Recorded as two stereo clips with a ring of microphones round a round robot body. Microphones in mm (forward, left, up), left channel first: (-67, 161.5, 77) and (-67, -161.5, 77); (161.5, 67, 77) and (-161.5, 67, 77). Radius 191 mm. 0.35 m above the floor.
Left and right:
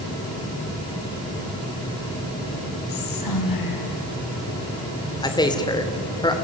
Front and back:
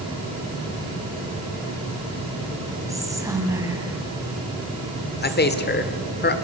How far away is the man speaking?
About 1.7 m.